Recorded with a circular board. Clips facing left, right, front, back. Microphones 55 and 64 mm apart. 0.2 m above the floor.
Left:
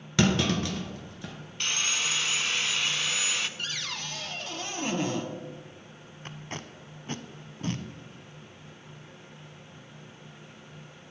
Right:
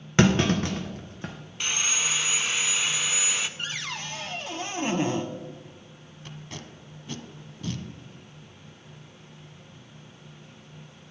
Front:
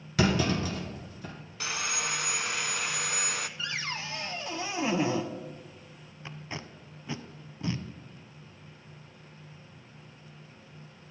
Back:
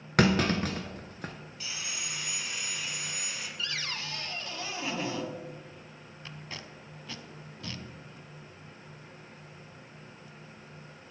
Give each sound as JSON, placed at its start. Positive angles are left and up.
{"t": 0.2, "sound": "a clunk", "azimuth_deg": -145, "distance_m": 1.3}
{"t": 1.6, "sound": "sawing", "azimuth_deg": -10, "distance_m": 0.5}
{"t": 3.6, "sound": "a cupboard door", "azimuth_deg": -45, "distance_m": 1.0}
{"t": 6.2, "sound": "tape being pulled", "azimuth_deg": 60, "distance_m": 0.6}